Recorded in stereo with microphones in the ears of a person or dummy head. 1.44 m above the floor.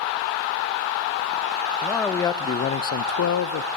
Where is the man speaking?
10° left (ahead or behind), 1.2 m; by 3.7 s 75° left (ahead or behind), 0.9 m.